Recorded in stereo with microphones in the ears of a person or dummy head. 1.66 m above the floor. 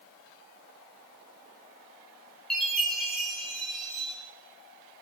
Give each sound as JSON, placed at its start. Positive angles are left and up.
{"t": 2.5, "sound": "a chime", "side_deg": 10, "distance_m": 7.5}